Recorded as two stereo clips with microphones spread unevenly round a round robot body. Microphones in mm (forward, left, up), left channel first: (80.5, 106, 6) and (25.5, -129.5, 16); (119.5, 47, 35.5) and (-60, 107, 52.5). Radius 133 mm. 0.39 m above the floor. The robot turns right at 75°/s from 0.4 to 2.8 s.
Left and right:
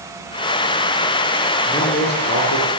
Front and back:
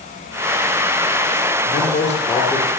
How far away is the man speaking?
About 8 m.